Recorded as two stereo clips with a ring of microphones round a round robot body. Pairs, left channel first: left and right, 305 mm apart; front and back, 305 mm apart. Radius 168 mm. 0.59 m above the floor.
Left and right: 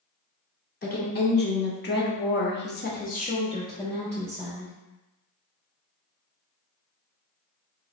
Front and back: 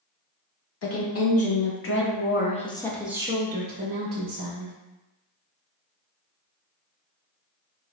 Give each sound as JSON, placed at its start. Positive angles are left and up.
{"t": 0.8, "sound": "a woman speaking", "azimuth_deg": 35, "distance_m": 1.5}